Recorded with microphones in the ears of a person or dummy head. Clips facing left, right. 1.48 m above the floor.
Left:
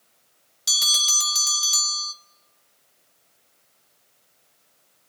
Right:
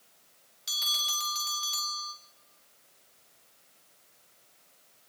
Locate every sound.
0.7 s a bell: 60° left (ahead or behind), 1.3 m